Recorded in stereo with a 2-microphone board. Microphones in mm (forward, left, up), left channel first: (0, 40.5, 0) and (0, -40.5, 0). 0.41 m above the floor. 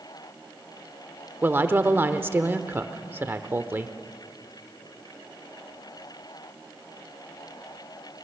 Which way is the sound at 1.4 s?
25° right (ahead or behind).